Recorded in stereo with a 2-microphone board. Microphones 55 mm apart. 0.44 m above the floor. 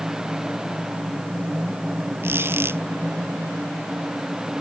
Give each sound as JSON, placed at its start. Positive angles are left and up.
{"t": 2.2, "sound": "a squeak", "side_deg": -45}